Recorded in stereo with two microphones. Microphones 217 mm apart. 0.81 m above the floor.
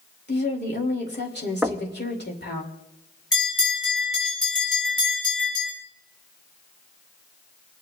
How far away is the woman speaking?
About 3 m.